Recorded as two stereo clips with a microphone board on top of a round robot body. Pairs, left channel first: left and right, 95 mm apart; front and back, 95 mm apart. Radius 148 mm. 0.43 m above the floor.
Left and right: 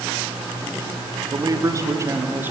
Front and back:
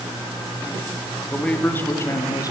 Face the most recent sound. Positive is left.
turn(degrees=-30)